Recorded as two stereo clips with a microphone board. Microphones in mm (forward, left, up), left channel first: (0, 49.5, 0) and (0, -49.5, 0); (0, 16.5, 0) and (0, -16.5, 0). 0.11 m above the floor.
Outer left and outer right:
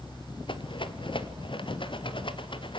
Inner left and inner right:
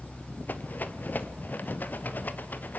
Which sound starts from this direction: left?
A rattle, at 0.5 s.